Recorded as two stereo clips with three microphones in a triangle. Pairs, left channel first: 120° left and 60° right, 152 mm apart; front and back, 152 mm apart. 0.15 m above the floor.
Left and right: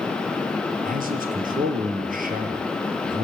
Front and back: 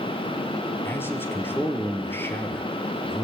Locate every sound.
0.8 s a man speaking: 75° right, 3.5 m